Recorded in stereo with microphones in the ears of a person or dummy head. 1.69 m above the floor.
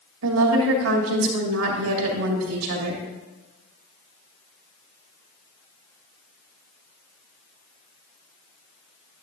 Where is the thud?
I don't hear a thud.